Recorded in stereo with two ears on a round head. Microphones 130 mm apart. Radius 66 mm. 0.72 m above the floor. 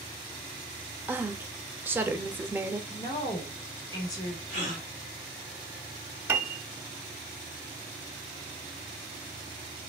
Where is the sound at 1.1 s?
15° right (ahead or behind), 0.6 m.